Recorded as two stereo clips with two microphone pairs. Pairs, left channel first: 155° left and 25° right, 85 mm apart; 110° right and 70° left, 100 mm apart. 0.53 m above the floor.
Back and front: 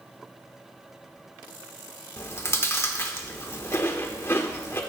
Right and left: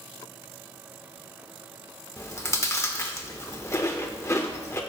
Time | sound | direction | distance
2.2 | chewing | 160° right | 1.1 m